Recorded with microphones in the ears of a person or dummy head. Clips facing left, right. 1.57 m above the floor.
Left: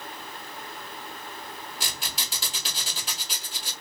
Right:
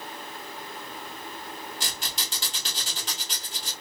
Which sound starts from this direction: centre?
A squeak, at 1.8 s.